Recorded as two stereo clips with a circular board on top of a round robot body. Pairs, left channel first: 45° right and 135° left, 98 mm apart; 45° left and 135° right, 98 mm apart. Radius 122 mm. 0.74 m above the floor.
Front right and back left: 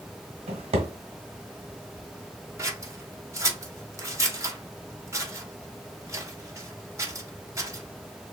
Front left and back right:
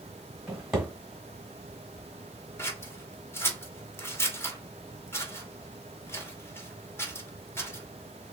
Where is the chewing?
No chewing in this recording.